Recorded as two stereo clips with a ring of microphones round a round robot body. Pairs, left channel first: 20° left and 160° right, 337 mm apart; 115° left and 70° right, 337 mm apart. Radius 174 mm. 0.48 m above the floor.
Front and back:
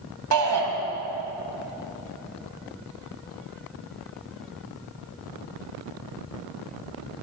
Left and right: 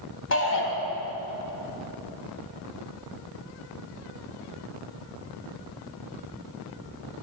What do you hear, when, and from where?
0.3 s a shout: 165° left, 3 m